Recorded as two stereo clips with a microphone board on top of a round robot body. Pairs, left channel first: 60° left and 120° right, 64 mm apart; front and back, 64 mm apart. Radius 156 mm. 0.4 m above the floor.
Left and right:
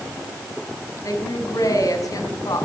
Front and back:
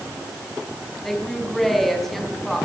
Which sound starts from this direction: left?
A woman speaking, at 1.0 s.